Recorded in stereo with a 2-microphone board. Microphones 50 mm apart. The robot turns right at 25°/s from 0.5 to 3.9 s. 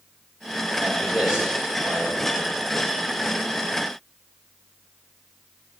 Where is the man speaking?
165° right, 5 m; by 2.6 s 125° right, 5 m.